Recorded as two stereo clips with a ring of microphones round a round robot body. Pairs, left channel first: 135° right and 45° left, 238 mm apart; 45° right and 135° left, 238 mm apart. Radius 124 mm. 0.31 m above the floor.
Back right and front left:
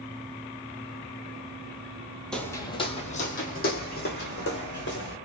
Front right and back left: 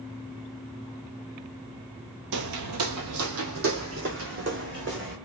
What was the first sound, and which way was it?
Footsteps, 140° left.